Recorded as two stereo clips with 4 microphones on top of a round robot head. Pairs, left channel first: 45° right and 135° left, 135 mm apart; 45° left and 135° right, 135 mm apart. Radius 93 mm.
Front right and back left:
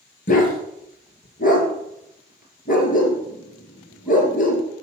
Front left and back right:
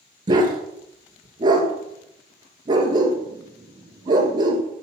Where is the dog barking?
75° right, 2.5 m.